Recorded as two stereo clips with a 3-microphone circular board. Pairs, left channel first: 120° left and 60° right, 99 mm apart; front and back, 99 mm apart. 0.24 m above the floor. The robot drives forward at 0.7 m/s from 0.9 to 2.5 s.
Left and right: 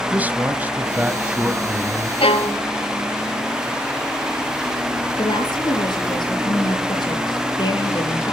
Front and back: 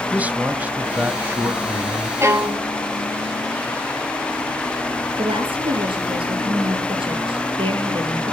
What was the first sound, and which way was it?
A man speaking, 120° right.